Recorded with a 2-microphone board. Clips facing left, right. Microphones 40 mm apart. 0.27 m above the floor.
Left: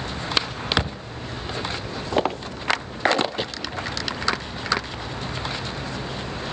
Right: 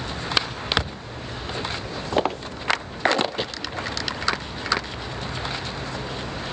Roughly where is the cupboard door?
Left.